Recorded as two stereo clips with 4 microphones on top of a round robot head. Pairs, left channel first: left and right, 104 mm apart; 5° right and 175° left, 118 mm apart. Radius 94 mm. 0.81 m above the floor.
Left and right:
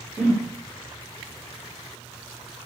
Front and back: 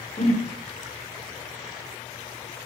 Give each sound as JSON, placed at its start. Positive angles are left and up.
{"t": 0.2, "sound": "a whoosh", "azimuth_deg": -15, "distance_m": 2.0}